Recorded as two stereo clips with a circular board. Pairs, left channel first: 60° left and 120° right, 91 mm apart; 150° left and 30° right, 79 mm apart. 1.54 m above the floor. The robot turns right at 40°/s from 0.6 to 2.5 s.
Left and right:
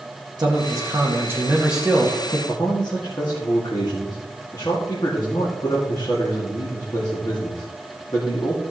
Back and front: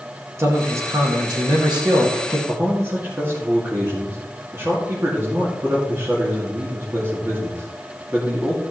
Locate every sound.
0.4 s a man speaking: 85° right, 1.9 m; by 2.4 s 15° right, 1.9 m
2.5 s a man speaking: 20° left, 2.5 m